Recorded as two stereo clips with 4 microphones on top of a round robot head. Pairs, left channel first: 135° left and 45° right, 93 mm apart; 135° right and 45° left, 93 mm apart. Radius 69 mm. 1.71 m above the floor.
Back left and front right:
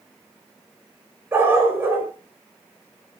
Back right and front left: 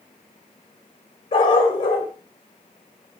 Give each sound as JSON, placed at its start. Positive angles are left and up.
{"t": 1.3, "sound": "a dog barking", "azimuth_deg": -110, "distance_m": 5.0}